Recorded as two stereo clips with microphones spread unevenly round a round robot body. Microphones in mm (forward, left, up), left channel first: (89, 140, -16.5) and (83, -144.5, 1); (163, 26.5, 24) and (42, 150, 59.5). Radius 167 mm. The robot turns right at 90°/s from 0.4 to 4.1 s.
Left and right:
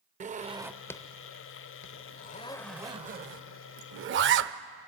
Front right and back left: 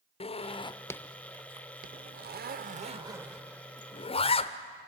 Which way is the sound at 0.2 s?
30° right.